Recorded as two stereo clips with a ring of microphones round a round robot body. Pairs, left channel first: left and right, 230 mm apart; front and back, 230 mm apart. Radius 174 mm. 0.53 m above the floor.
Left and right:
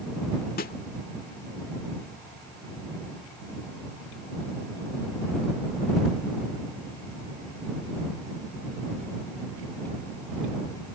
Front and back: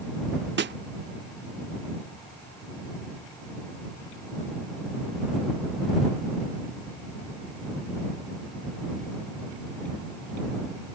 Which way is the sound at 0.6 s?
140° left.